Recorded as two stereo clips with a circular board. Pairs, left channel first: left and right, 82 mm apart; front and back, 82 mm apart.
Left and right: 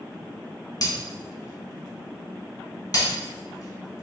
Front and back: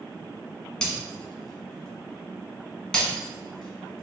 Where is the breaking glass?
80° left, 1.1 m.